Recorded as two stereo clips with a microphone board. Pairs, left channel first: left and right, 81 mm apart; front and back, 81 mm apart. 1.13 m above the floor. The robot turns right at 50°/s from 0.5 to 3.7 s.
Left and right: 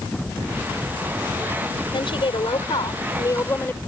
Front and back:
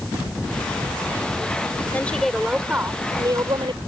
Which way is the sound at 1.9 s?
70° left.